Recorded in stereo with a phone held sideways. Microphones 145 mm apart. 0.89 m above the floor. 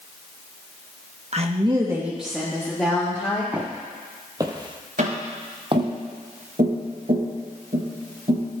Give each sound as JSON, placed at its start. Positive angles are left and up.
{"t": 1.3, "sound": "a woman speaking", "side_deg": -50, "distance_m": 0.9}
{"t": 3.5, "sound": "footsteps", "side_deg": -10, "distance_m": 2.0}
{"t": 5.0, "sound": "tapping", "side_deg": -70, "distance_m": 4.0}